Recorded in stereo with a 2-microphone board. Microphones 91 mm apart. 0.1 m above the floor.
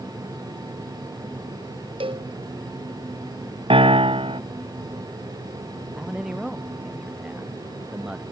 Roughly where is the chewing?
I don't hear chewing.